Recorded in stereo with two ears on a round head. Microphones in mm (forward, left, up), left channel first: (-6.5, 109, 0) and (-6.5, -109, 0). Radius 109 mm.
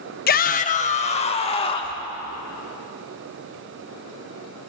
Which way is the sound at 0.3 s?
40° left (ahead or behind).